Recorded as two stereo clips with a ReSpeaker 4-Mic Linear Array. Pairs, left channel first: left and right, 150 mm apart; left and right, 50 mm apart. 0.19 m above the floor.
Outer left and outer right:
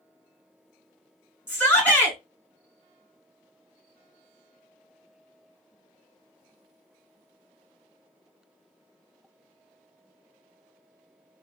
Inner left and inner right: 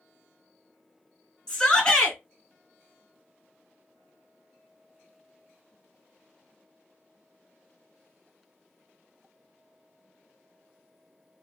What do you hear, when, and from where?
1.5 s a shout: 15° left (ahead or behind), 2 m